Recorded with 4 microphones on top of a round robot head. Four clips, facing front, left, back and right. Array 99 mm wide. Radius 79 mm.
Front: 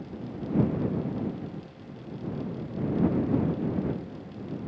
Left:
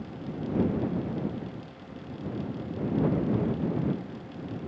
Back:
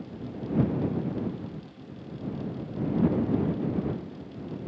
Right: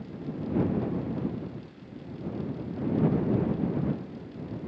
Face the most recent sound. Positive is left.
No sound to turn to.